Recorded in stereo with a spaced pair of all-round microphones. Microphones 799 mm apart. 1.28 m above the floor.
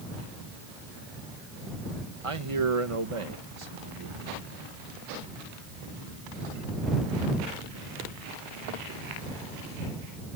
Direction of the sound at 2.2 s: 40° right (ahead or behind).